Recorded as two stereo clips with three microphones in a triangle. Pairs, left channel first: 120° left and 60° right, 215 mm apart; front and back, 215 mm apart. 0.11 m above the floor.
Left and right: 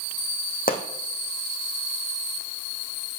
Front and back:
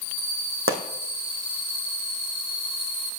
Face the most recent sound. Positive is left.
turn(degrees=170)